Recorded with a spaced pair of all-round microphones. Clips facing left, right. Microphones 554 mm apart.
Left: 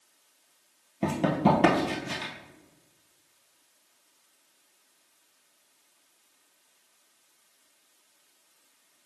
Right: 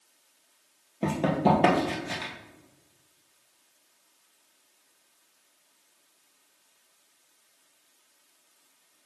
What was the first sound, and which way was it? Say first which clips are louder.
Running footsteps: even; 20° left (ahead or behind).